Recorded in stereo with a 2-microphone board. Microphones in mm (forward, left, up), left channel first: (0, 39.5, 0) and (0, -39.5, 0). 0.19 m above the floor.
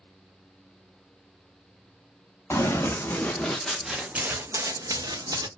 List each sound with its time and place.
2.5 s running footsteps: 35° left (ahead or behind), 1.1 m; by 5.5 s 70° right (ahead or behind), 0.9 m